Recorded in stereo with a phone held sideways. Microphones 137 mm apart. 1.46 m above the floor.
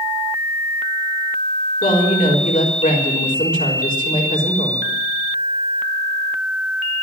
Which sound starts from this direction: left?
A woman speaking, at 1.8 s.